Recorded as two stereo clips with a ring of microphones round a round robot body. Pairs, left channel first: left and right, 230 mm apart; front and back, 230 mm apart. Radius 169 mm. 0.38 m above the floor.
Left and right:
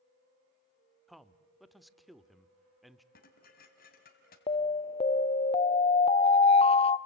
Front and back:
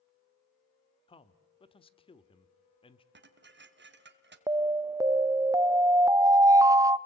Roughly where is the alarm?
Behind left.